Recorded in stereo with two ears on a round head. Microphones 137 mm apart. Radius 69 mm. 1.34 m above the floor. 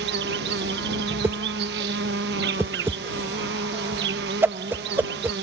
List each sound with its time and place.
0.0 s an insect: 80° right
1.2 s a whoosh: 15° right (ahead or behind)